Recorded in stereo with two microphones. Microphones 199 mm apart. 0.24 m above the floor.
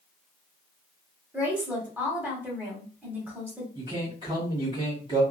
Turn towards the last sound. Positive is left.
turn(degrees=-25)  # may be behind; listen again after turning